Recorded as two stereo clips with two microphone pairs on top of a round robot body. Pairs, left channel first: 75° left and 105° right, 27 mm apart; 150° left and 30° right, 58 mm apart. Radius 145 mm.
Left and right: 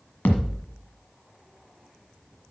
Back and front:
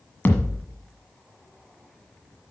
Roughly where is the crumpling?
I don't hear crumpling.